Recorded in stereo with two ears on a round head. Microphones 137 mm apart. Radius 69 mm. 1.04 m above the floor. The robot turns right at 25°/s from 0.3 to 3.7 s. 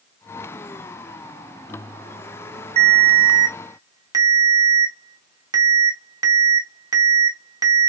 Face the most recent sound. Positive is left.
turn(degrees=-20)  # may be behind; listen again after turning